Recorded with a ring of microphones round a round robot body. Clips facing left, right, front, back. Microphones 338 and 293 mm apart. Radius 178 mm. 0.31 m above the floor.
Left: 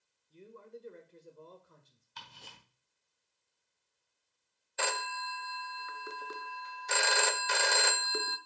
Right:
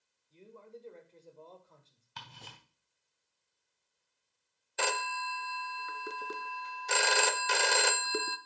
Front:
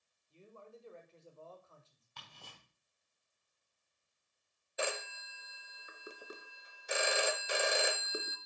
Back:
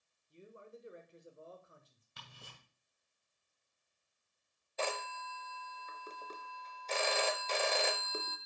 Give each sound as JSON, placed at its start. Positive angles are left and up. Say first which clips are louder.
{"t": 0.3, "sound": "a man speaking", "louder": "left 1 dB, back 2 dB", "azimuth_deg": 135, "distance_m": 1.5}
{"t": 2.2, "sound": "ticking", "louder": "right 3 dB, even", "azimuth_deg": -110, "distance_m": 2.5}
{"t": 4.8, "sound": "a phone ringing", "louder": "right 2 dB, even", "azimuth_deg": -70, "distance_m": 0.6}